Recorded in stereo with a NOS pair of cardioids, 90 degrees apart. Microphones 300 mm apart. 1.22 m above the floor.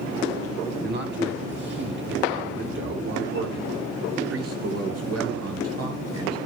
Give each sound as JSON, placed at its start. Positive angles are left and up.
{"t": 0.8, "sound": "a man speaking", "azimuth_deg": -35, "distance_m": 10.0}